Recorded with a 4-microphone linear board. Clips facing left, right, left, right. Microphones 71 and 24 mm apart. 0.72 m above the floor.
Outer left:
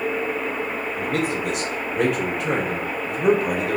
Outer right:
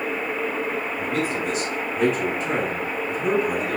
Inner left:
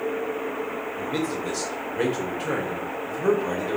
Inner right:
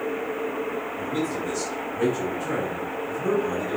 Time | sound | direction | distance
1.0 | a man speaking | 75° left (ahead or behind) | 2 m